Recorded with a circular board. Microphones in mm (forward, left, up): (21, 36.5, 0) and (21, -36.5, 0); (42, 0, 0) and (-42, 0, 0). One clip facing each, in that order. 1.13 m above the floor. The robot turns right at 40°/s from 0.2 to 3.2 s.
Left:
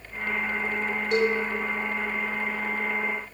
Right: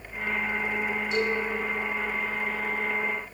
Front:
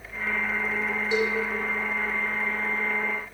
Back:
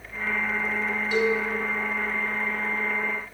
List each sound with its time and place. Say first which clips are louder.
1.1 s a cowbell: left 5 dB, back 2 dB; 65° left, 3 m; by 1.4 s 80° left, 3 m